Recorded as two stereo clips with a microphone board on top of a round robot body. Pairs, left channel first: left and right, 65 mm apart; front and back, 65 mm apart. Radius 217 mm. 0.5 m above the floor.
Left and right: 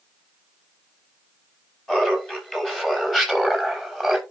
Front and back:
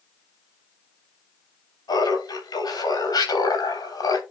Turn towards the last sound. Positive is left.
turn(degrees=5)